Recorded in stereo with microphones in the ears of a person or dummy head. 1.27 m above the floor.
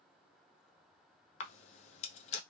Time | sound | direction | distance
1.4 | a camera shutter | 40° left (ahead or behind) | 0.5 m